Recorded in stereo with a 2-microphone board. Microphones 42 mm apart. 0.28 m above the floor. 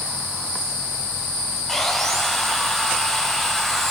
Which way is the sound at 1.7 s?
5° left (ahead or behind).